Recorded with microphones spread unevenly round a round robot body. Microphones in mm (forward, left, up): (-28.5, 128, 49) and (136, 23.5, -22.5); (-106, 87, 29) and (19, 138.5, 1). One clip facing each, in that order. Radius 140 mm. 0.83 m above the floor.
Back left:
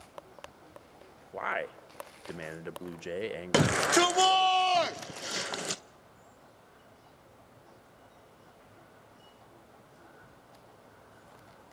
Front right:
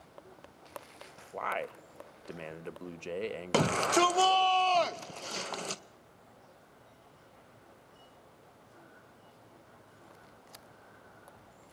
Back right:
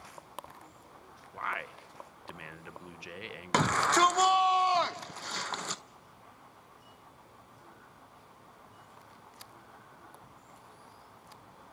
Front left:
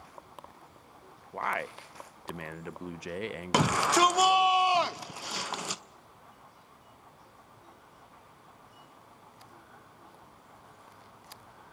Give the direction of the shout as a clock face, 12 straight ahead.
11 o'clock.